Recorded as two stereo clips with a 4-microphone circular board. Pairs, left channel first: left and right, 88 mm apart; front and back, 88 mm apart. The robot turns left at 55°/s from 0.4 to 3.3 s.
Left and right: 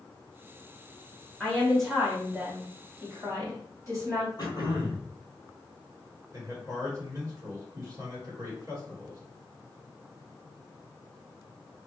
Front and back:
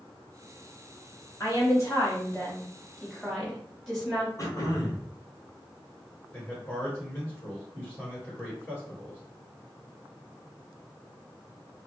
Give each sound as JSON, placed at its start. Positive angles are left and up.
{"t": 1.4, "sound": "a woman speaking", "azimuth_deg": 20, "distance_m": 1.7}
{"t": 4.4, "sound": "throat clearing", "azimuth_deg": 50, "distance_m": 1.3}
{"t": 6.3, "sound": "a man speaking", "azimuth_deg": -60, "distance_m": 1.8}